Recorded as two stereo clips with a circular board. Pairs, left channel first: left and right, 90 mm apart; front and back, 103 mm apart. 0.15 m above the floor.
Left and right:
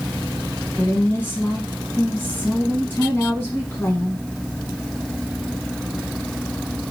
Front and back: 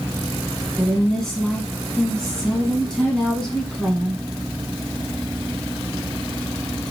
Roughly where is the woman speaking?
Left.